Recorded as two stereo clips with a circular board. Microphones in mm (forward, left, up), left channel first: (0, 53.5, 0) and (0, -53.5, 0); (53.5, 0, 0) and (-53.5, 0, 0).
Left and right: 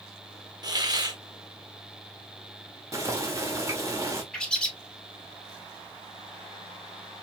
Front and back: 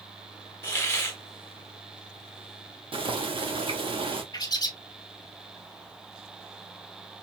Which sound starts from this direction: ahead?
A bird, at 4.3 s.